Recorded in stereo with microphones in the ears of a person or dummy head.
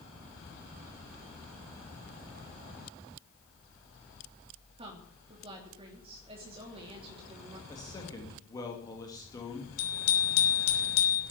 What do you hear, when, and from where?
4.8 s a woman speaking: 35° right (ahead or behind), 3 m
7.7 s a man speaking: 20° left (ahead or behind), 2.5 m
9.8 s a bicycle bell: 60° left (ahead or behind), 3.5 m